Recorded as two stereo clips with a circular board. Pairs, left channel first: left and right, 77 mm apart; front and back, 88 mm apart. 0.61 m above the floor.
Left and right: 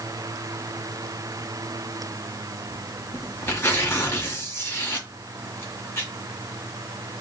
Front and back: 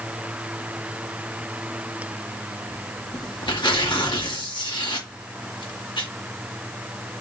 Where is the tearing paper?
30° left, 1.5 m.